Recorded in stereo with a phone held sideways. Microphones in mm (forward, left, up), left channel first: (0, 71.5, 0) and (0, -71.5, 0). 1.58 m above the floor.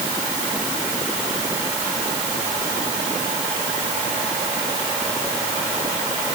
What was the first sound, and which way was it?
Only background noise.